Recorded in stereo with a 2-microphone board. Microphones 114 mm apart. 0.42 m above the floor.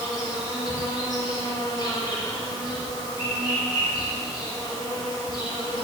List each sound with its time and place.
0.0 s an insect: 40° left (ahead or behind), 1.1 m